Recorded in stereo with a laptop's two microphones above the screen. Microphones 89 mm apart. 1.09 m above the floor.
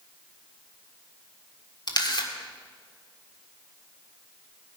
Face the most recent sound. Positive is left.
turn(degrees=55)  # may be behind; listen again after turning